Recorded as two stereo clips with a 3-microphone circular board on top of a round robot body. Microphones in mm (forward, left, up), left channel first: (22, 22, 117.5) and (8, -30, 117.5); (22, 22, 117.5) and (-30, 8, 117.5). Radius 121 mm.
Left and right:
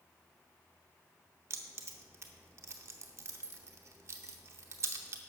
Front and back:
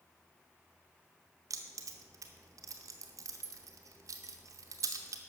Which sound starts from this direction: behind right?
Keys jangling, at 1.5 s.